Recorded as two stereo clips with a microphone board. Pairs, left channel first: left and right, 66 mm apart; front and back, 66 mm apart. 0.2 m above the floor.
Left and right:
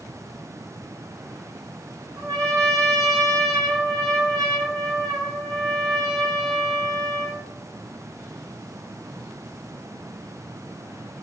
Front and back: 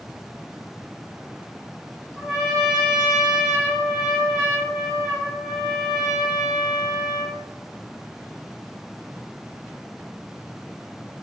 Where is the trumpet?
95° right, 1.1 m.